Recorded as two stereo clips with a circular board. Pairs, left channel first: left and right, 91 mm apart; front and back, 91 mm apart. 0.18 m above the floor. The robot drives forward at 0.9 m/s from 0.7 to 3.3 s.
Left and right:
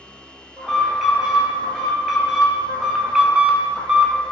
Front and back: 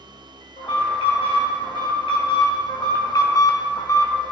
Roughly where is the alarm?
Ahead.